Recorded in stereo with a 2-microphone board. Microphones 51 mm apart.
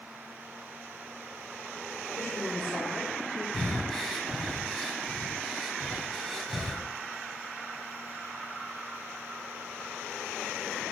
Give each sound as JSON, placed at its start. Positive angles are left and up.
{"t": 2.2, "sound": "a woman speaking", "side_deg": 50, "distance_m": 1.9}
{"t": 3.5, "sound": "breathing", "side_deg": 5, "distance_m": 1.6}